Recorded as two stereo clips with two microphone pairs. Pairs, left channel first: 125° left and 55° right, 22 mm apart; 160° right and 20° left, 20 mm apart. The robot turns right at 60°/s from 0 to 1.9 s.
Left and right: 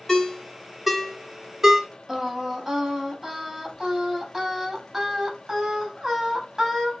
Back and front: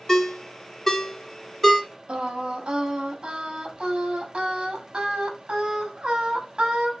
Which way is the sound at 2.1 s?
5° left.